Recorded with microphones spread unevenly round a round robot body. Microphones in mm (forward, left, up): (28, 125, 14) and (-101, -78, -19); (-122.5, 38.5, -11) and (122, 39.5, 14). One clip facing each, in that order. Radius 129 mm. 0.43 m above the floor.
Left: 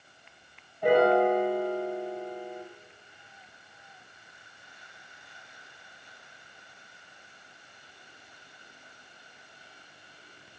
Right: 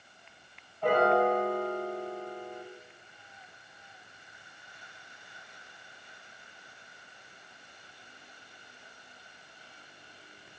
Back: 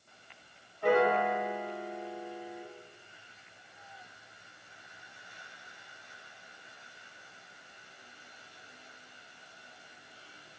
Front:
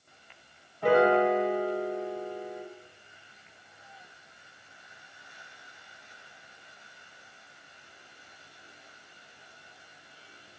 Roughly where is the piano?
Ahead right.